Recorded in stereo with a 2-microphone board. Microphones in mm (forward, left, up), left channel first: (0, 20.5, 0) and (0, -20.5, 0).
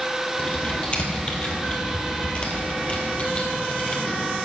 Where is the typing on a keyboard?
30° left (ahead or behind), 1.8 m.